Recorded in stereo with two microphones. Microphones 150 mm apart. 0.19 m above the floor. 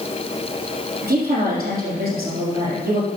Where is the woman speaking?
80° right, 5.5 m.